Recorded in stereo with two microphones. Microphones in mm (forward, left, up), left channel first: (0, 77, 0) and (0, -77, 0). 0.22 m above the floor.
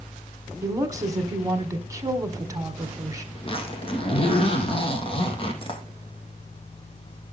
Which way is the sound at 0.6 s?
20° right (ahead or behind).